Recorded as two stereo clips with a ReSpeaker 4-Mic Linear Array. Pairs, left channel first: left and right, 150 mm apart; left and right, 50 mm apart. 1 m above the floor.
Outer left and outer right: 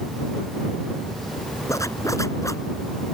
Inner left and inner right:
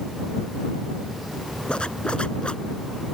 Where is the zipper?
20° left (ahead or behind).